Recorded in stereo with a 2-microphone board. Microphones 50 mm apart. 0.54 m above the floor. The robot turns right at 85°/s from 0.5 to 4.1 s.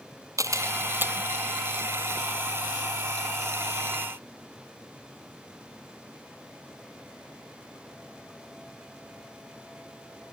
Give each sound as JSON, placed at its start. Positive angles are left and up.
{"t": 0.4, "sound": "a camera shutter", "side_deg": -85}